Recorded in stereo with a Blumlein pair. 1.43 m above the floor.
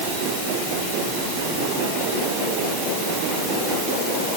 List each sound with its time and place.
Only background noise.